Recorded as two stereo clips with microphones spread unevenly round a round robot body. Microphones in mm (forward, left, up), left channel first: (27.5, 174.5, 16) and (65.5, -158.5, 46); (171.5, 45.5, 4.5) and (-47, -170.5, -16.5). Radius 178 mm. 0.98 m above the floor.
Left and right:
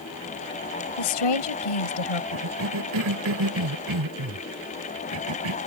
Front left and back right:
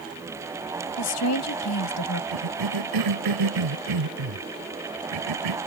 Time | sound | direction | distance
1.0 | a woman speaking | 95° left | ?
2.3 | a cough | 130° right | ?